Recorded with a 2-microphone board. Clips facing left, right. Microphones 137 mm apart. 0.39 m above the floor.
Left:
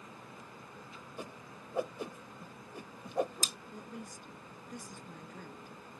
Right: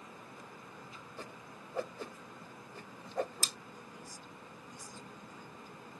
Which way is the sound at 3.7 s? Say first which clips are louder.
Left 5 dB; 60° left (ahead or behind).